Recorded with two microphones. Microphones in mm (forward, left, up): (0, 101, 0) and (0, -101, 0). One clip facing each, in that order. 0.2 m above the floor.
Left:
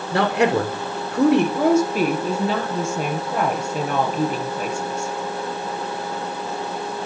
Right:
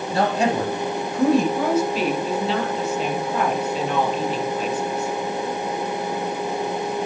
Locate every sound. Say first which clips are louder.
0.1 s a man speaking: left 2 dB; 70° left (ahead or behind), 3 m
1.6 s a woman speaking: left 3 dB; 45° left (ahead or behind), 4.5 m